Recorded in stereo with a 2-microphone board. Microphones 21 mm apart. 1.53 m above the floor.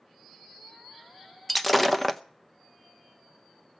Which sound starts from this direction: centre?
Breaking glass, at 1.5 s.